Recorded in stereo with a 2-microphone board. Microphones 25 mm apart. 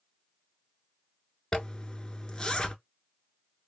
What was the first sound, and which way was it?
A zipper, 30° left (ahead or behind).